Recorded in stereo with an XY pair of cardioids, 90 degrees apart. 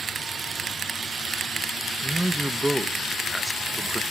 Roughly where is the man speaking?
Ahead.